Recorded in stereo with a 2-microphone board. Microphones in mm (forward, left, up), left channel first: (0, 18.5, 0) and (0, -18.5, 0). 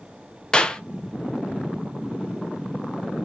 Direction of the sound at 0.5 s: 20° left (ahead or behind).